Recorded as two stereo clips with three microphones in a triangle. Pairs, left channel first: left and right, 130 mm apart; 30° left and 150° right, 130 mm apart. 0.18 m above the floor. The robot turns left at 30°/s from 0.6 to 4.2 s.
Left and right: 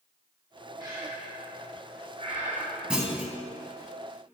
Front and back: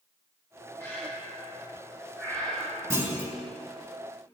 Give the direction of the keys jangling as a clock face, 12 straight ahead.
I don't hear keys jangling.